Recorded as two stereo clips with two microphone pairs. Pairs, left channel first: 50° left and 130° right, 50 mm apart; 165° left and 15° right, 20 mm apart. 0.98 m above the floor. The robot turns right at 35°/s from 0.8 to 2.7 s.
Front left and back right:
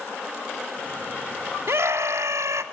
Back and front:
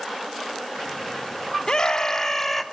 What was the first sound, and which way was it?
A scream, 155° right.